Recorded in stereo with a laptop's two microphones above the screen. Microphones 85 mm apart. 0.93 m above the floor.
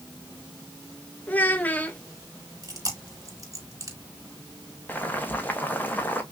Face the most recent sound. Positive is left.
turn(degrees=20)  # may be behind; listen again after turning